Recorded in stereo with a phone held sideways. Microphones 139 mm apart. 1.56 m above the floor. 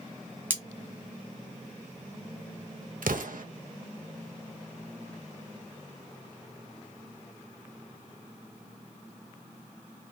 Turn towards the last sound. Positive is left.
turn(degrees=-80)